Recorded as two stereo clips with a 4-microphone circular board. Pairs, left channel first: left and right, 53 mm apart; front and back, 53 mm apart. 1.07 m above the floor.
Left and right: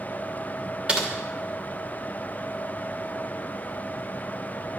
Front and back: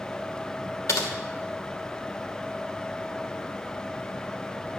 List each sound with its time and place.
0.9 s typing on a keyboard: 20° right, 2.5 m